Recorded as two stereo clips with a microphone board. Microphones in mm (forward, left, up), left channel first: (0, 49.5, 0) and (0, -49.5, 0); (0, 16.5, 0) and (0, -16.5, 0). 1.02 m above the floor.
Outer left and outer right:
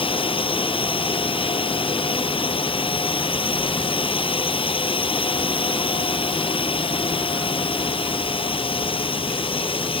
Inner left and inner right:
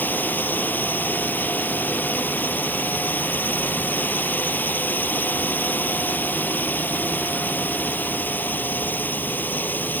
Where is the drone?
65° left (ahead or behind).